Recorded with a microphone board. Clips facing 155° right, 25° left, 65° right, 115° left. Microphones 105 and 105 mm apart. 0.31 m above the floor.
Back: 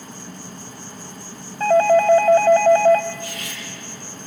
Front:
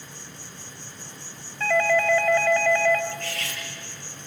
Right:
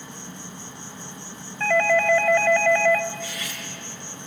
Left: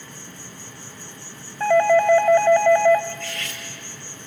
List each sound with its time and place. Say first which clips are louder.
0.0 s an insect: back 8 dB, right 2 dB; 135° right, 1.0 m
1.6 s a doorbell: back 8 dB, left 5 dB; 170° left, 2.5 m
3.1 s cutlery clinking: back 1 dB, left 1 dB; 10° left, 4.5 m